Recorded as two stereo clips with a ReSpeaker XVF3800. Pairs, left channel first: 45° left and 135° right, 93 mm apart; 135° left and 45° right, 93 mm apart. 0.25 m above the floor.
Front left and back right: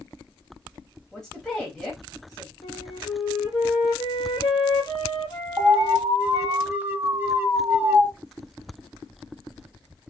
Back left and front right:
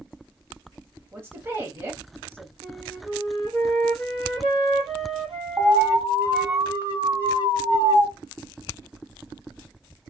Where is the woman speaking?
30° right, 1.0 m.